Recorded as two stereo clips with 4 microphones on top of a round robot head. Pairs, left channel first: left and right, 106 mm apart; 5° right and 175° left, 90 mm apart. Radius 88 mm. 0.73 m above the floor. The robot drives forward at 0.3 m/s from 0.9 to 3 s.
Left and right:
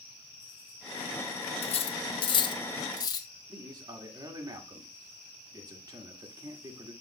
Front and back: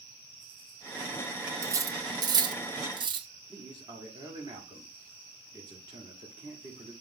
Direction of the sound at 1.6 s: 115° left.